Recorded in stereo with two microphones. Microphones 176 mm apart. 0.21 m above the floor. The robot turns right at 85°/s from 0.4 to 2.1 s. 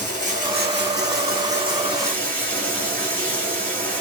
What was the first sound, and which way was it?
Running water, 135° right.